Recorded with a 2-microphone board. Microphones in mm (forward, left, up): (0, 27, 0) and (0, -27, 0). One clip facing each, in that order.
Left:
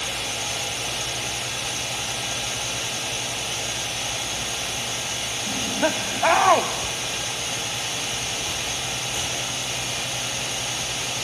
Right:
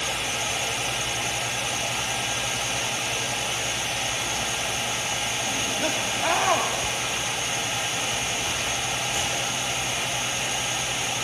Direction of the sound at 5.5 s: 30° left (ahead or behind).